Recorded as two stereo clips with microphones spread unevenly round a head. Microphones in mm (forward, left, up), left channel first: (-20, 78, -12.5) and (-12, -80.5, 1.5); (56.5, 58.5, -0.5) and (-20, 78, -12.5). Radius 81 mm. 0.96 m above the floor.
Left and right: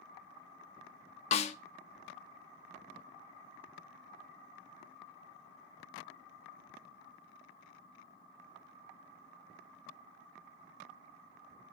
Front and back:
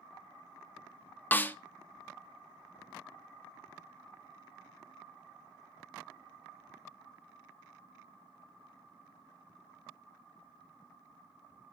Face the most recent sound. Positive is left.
turn(degrees=45)